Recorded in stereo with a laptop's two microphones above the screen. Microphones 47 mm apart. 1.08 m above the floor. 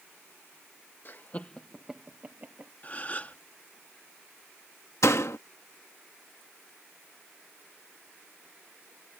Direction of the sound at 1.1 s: 45° left (ahead or behind).